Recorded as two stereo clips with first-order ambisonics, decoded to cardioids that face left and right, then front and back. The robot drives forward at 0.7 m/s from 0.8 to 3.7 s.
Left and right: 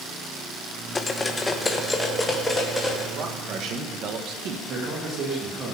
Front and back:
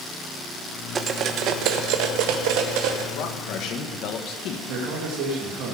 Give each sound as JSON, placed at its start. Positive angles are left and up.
{"t": 0.9, "sound": "cutlery clinking", "azimuth_deg": 145, "distance_m": 0.7}
{"t": 3.1, "sound": "a man speaking", "azimuth_deg": -35, "distance_m": 1.6}
{"t": 4.7, "sound": "a man speaking", "azimuth_deg": -150, "distance_m": 2.5}